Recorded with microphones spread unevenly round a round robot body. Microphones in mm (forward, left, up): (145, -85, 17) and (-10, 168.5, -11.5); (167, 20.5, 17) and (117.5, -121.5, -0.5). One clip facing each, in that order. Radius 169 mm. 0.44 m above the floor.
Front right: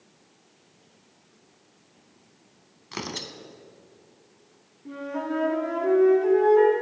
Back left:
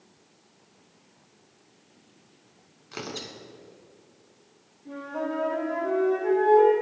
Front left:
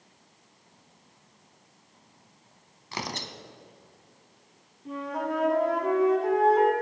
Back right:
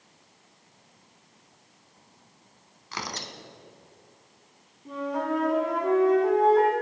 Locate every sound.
2.9 s tearing paper: straight ahead, 0.9 m
4.8 s a flute: 15° right, 3.5 m